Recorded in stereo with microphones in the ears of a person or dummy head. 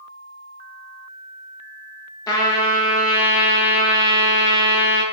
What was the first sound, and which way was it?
A trumpet, 25° left (ahead or behind).